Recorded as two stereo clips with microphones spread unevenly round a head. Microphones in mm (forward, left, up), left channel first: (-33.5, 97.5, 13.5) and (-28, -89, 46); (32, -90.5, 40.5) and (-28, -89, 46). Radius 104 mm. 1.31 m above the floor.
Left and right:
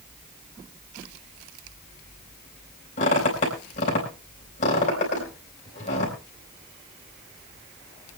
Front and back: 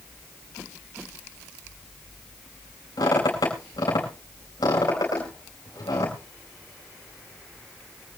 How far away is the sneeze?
I don't hear a sneeze.